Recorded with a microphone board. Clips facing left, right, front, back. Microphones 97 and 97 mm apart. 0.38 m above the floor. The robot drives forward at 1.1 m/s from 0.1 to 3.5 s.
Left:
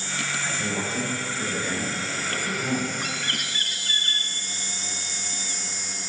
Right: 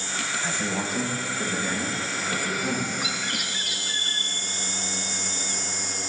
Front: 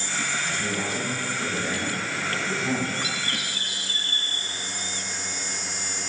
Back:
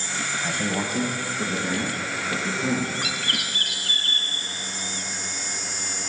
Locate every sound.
0.4 s a man speaking: 160° right, 2 m; by 2.9 s 170° right, 4.5 m
3.0 s a bird: 175° right, 1.0 m